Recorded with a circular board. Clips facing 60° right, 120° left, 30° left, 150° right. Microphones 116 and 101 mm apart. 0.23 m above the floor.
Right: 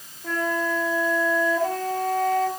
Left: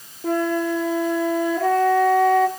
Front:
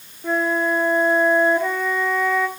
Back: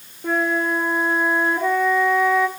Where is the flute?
130° left, 2.5 m.